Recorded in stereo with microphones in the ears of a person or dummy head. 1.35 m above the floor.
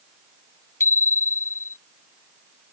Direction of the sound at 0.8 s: 10° left (ahead or behind).